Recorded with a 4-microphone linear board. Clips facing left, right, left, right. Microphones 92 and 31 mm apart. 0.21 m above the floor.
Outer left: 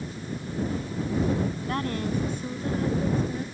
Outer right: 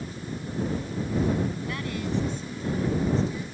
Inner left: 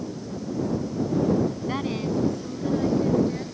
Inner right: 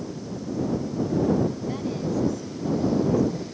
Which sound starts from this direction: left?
A woman speaking, at 1.7 s.